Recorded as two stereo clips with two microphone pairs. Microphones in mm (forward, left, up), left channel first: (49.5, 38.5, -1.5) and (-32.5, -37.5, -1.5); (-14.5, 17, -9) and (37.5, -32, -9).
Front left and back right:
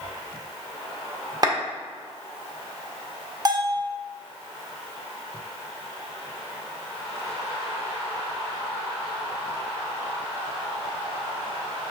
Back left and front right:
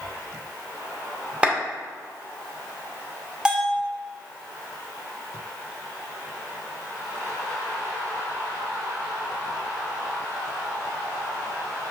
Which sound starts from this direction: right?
A clap, at 1.4 s.